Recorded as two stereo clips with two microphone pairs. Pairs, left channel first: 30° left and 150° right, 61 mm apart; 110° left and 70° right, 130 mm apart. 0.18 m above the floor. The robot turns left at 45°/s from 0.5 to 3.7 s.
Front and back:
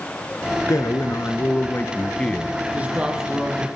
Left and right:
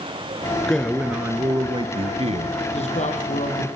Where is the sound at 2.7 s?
145° left, 6 m; by 3.7 s 105° left, 6 m.